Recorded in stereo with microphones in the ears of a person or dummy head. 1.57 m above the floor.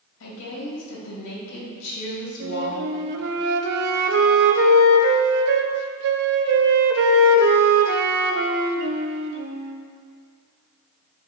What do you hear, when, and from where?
0.2 s a woman speaking: 85° left, 2.5 m
2.4 s a flute: 60° right (ahead or behind), 0.6 m